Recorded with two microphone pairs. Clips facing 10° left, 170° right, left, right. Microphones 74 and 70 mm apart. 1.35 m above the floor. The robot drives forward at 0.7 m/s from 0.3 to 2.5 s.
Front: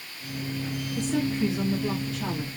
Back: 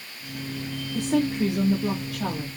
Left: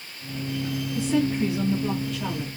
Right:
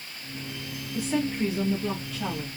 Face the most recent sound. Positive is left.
turn(degrees=-175)